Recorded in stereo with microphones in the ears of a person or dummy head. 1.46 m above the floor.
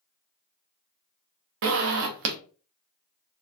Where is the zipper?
65° right (ahead or behind), 0.5 m.